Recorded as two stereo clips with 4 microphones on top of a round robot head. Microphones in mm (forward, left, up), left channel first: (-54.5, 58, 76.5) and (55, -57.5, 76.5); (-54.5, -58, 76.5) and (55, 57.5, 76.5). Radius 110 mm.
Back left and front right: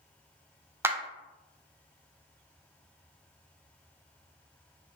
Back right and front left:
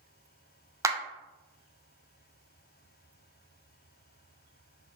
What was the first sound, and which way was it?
A clap, 5° left.